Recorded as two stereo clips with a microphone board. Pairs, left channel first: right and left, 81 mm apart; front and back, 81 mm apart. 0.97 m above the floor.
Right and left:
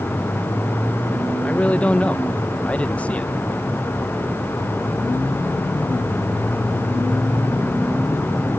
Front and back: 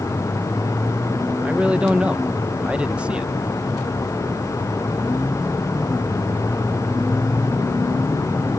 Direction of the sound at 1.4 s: 130° right.